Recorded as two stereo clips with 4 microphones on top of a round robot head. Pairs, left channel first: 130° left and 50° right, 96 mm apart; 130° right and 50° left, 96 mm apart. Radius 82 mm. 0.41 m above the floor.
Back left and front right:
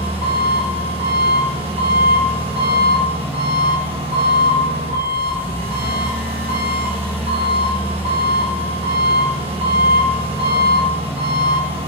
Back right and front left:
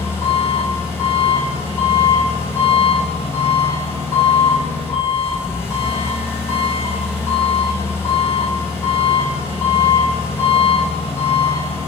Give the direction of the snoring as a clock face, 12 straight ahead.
No snoring in this recording.